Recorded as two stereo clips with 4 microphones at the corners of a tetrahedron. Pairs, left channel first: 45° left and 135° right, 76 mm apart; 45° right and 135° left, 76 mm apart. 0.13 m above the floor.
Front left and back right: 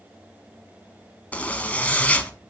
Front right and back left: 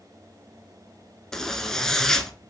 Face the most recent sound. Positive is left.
turn(degrees=20)